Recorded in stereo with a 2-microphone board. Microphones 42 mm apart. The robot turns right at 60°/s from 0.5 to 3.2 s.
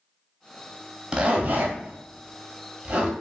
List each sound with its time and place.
1.1 s a zipper: 25° right (ahead or behind), 0.7 m; by 3.1 s 30° right (ahead or behind), 0.7 m